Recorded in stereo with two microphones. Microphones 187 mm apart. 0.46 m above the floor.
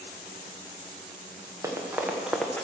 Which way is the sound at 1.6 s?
15° right (ahead or behind).